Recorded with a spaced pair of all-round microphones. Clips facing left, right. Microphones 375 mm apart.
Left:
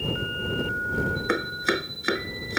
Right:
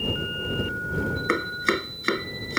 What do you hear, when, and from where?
1.3 s chopping: 5° right (ahead or behind)